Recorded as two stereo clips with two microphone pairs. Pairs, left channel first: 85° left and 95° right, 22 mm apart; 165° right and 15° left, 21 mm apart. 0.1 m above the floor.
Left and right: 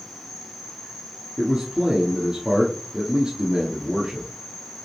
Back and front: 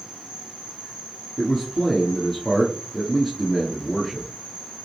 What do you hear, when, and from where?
0.0 s an insect: 15° right, 1.8 m
1.4 s a man speaking: 80° right, 1.4 m